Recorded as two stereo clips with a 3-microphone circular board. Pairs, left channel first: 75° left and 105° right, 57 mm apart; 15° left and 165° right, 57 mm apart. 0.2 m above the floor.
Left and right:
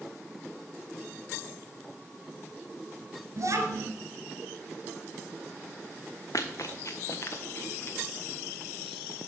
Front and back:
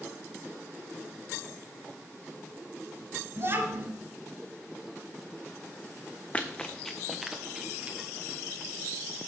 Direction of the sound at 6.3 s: 85° left.